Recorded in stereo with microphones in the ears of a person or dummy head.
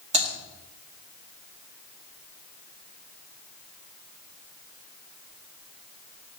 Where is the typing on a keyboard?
40° right (ahead or behind), 1.9 m.